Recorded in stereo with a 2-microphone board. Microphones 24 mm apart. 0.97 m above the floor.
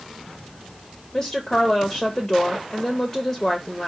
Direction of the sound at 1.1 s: 10° left (ahead or behind).